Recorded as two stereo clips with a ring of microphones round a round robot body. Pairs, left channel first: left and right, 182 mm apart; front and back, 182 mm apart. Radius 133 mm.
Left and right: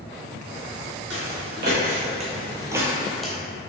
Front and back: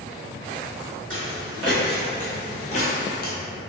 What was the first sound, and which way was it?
Footsteps, 125° right.